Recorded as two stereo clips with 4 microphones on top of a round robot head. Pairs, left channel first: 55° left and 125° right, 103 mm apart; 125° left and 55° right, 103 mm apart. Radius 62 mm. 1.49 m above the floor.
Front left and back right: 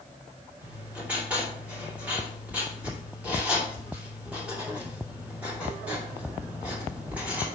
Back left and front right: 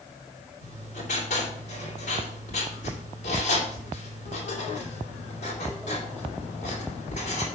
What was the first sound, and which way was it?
Writing, 155° left.